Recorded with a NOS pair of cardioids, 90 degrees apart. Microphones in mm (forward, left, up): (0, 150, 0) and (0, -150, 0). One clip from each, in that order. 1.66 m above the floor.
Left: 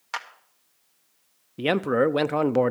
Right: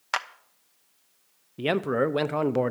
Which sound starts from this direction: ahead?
A man speaking, at 1.6 s.